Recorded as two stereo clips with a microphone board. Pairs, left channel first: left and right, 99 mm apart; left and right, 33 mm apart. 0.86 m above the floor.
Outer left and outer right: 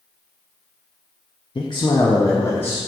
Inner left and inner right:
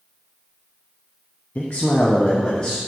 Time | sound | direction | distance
1.6 | a man speaking | 55° left (ahead or behind) | 0.8 m